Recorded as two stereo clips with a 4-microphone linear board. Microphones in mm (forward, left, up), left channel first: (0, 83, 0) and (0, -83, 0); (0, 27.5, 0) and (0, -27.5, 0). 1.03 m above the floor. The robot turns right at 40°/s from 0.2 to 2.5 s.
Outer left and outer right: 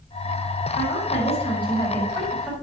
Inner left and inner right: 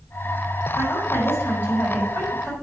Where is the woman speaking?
120° left, 5 m; by 2.5 s 170° right, 5 m.